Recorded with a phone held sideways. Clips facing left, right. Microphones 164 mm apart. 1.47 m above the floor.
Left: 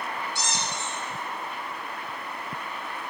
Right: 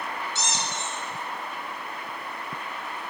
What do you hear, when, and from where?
0.3 s a squeak: 20° right (ahead or behind), 0.6 m